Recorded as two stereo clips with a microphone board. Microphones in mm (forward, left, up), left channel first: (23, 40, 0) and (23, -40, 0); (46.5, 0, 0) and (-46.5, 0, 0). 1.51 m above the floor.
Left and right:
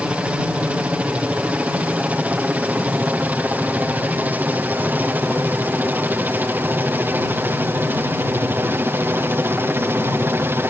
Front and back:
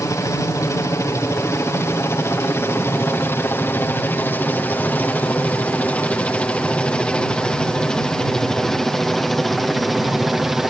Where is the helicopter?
25° right; by 10.7 s 95° right.